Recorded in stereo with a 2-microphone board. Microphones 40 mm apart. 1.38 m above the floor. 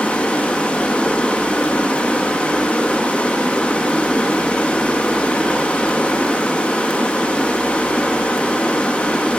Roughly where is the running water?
Left.